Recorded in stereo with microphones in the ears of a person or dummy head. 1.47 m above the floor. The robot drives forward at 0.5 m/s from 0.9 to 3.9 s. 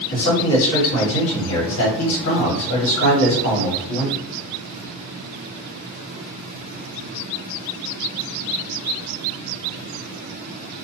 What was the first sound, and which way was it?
A man speaking, 50° left (ahead or behind).